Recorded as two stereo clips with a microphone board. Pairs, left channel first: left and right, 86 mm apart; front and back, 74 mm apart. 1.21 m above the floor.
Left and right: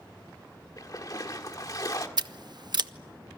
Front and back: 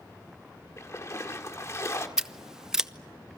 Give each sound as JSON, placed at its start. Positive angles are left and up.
{"t": 0.8, "sound": "a splash", "azimuth_deg": 45, "distance_m": 1.7}
{"t": 2.2, "sound": "scissors", "azimuth_deg": -100, "distance_m": 0.6}